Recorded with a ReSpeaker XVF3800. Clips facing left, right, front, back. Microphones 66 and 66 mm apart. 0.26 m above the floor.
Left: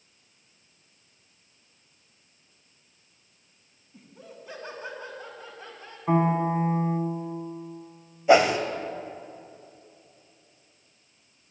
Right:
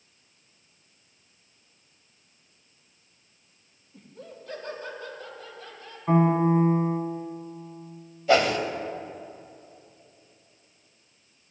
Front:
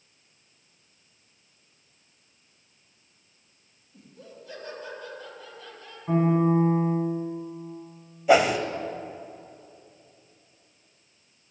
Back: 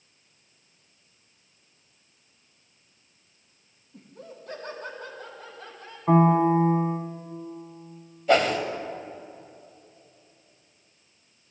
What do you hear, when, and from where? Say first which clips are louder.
3.9 s laughter: right 2 dB, back 3 dB; 170° left, 3 m; by 6.0 s 145° left, 3.5 m
6.1 s a piano: right 2 dB, back 3 dB; 170° left, 1.1 m
8.3 s a whoosh: left 3 dB, front 2 dB; 65° left, 0.8 m